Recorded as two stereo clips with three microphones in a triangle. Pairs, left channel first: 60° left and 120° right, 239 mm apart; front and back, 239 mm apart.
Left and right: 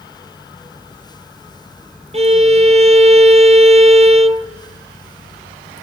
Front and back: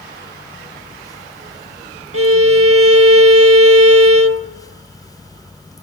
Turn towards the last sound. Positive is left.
turn(degrees=180)